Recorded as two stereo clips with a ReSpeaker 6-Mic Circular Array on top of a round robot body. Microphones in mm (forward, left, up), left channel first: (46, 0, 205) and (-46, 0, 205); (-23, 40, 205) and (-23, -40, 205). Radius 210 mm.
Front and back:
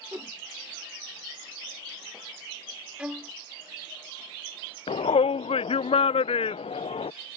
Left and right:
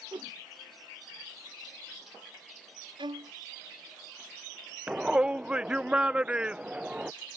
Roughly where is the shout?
Ahead.